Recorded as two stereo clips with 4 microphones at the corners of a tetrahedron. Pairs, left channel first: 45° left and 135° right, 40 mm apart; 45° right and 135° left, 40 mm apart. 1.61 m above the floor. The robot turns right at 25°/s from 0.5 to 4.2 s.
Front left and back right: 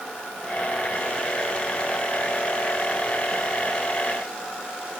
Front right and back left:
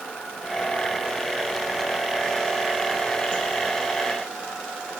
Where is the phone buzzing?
I don't hear a phone buzzing.